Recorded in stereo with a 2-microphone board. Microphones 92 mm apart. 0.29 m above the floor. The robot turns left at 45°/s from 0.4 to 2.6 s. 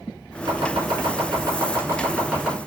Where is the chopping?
70° right (ahead or behind), 1.5 m; by 2.6 s 5° right (ahead or behind), 1.5 m.